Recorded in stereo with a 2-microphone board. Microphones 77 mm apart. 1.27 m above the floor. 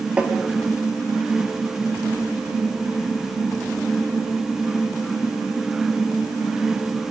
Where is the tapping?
15° right (ahead or behind), 1.9 m.